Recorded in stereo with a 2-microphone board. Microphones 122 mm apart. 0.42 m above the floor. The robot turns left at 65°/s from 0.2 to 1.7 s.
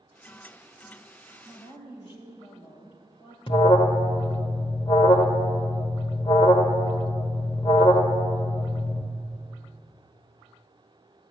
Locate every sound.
1.4 s a woman speaking: 40° left (ahead or behind), 2.5 m; by 3.4 s 50° left (ahead or behind), 2.5 m
3.5 s an alarm: 45° left (ahead or behind), 0.9 m